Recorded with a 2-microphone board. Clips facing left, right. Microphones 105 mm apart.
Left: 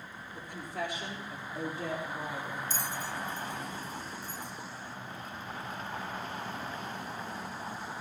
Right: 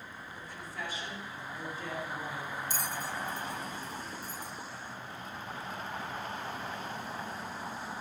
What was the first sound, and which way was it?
A woman speaking, 65° left (ahead or behind).